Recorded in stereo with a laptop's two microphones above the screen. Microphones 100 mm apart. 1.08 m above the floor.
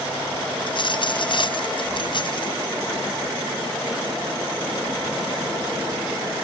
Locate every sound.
0.7 s a dropped coin: 55° left (ahead or behind)